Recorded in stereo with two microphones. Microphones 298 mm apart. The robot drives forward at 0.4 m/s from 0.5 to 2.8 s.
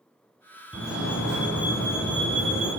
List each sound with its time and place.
0.7 s a fire alarm: 5° right (ahead or behind), 2.5 m